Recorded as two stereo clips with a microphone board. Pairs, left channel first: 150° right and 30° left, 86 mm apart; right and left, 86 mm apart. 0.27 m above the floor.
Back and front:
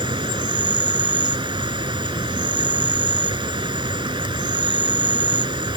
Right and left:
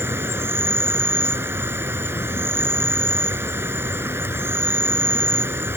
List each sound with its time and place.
0.0 s an insect: 30° left